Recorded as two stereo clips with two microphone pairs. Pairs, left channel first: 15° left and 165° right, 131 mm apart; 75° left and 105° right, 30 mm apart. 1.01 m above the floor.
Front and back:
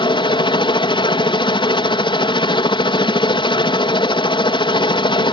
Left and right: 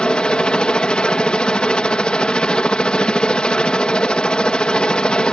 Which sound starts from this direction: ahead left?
A helicopter, at 0.0 s.